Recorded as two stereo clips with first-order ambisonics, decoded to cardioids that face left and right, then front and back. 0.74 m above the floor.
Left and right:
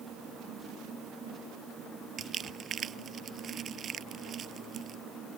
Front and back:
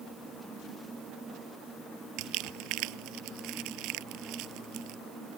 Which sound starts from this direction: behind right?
Crumpling, at 2.2 s.